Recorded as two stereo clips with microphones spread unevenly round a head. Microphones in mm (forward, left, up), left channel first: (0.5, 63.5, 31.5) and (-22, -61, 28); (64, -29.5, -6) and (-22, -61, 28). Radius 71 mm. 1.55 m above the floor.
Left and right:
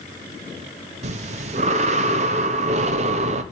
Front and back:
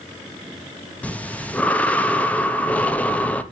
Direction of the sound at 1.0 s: 55° right.